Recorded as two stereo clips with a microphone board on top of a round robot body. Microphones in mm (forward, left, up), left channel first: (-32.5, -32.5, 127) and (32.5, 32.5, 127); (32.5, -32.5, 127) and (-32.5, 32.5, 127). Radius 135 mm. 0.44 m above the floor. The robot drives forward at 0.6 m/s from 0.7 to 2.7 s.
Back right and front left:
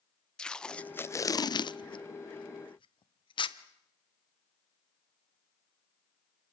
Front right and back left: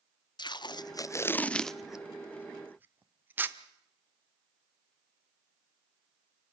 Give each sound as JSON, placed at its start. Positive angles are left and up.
{"t": 0.4, "sound": "tape being pulled", "azimuth_deg": -55, "distance_m": 0.7}